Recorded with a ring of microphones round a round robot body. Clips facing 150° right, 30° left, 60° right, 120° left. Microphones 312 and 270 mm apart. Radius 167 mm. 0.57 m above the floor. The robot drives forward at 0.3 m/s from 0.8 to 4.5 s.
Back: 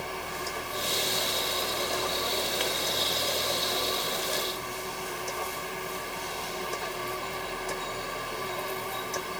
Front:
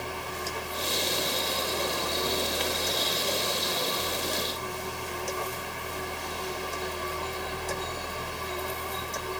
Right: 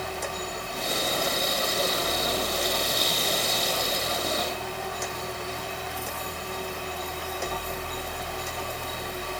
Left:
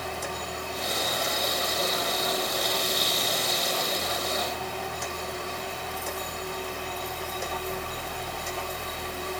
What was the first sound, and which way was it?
Only background noise.